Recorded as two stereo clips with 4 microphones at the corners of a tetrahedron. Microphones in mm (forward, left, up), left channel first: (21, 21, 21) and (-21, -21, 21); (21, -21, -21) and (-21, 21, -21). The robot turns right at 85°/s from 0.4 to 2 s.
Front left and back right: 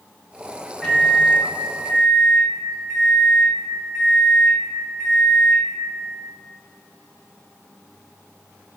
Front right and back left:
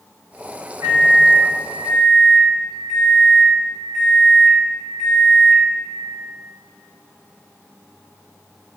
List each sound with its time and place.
0.8 s a microwave: 120° left, 0.6 m; by 5.7 s 140° right, 0.6 m